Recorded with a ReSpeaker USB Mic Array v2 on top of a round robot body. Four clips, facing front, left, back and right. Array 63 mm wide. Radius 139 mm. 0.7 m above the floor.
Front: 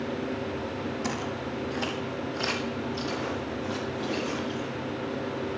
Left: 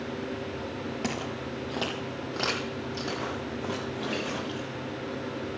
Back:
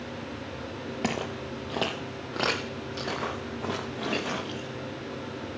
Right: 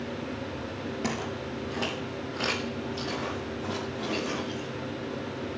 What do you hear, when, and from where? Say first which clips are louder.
1.0 s footsteps: right 2 dB, even; 175° left, 0.9 m; by 4.7 s 165° left, 4.5 m